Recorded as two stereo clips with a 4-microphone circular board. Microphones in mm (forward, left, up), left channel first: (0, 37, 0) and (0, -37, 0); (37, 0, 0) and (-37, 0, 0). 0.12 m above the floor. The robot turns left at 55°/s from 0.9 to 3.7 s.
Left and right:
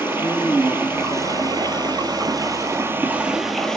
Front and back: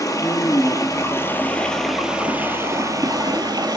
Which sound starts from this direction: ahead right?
Running water, at 0.0 s.